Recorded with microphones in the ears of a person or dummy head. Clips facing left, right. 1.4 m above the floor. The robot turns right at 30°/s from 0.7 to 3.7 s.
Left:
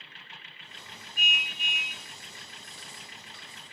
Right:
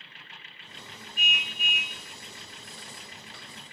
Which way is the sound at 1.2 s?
45° left (ahead or behind).